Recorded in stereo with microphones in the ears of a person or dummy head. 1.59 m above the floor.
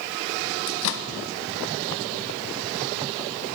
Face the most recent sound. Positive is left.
turn(degrees=65)  # may be behind; listen again after turning